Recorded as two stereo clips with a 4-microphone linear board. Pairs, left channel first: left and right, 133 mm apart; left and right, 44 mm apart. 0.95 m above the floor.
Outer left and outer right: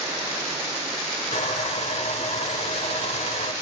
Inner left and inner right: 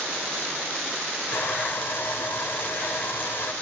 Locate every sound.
1.3 s sawing: 55° left (ahead or behind), 4 m